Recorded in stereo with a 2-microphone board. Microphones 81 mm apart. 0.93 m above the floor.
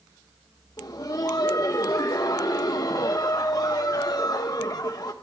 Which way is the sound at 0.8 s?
55° left (ahead or behind).